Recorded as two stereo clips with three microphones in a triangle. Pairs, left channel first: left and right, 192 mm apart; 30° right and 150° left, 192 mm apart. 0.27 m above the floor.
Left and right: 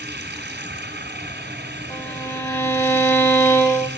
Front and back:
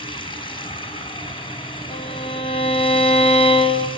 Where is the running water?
90° right, 2.5 m.